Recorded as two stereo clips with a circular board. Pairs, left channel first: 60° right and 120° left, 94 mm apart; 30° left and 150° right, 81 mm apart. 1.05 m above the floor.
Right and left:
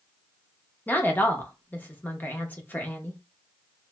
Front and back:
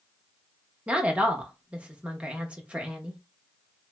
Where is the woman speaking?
95° right, 0.8 m.